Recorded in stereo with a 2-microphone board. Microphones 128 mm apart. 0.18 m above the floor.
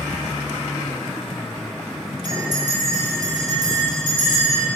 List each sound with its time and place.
2.2 s a bell: 80° right, 2.5 m